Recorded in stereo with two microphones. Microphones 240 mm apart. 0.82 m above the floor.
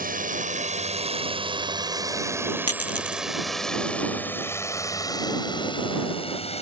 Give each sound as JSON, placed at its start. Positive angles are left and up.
{"t": 0.0, "sound": "a drone", "side_deg": -35}
{"t": 2.7, "sound": "a dropped coin", "side_deg": 70}